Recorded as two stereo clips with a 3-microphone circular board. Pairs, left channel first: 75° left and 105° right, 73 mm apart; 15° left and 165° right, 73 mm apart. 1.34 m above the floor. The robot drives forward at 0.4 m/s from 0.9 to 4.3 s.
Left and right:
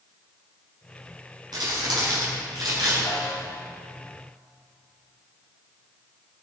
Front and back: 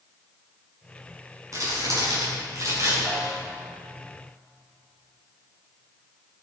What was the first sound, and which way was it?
Crumpling, 125° right.